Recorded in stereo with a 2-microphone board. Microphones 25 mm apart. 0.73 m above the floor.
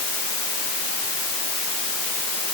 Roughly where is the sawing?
I don't hear sawing.